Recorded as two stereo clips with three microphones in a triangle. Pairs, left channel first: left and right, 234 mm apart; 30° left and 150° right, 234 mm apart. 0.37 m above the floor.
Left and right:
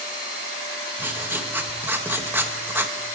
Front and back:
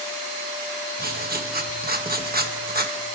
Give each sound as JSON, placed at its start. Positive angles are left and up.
{"t": 1.0, "sound": "writing", "azimuth_deg": -165, "distance_m": 1.7}